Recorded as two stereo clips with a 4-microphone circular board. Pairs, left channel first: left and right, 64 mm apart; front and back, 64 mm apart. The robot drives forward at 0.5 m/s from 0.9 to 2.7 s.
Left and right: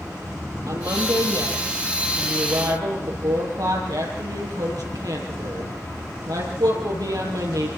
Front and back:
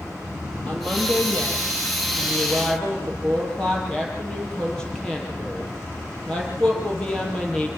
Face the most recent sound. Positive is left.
turn(degrees=-80)